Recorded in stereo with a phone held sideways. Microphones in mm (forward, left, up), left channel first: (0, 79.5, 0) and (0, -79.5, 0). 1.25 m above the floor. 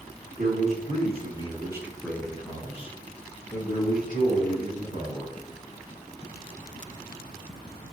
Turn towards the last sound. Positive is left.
turn(degrees=80)